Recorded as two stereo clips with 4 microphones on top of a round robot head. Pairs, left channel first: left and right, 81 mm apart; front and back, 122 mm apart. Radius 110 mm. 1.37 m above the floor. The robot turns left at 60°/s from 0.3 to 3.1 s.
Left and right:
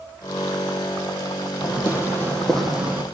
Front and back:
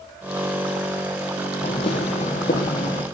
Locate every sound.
1.6 s footsteps: 55° left, 3 m; by 3.0 s 20° right, 3.5 m